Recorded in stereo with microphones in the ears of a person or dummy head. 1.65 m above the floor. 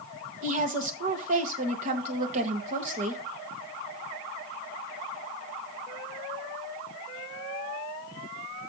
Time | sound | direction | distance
0.4 | a woman speaking | 40° right (ahead or behind) | 1.4 m